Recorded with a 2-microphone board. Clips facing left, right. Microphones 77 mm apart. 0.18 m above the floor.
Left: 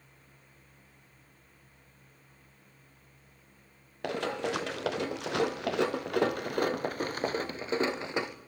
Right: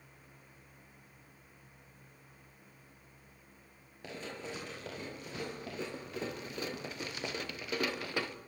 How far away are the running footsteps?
About 2.5 m.